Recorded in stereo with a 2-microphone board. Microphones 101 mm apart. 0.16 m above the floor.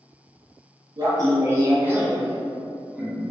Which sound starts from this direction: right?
Laughter, at 1.0 s.